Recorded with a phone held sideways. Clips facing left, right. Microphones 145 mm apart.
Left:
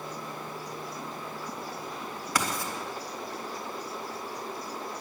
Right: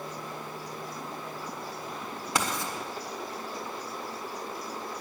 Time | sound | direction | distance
2.4 | writing | 25° right (ahead or behind) | 1.6 m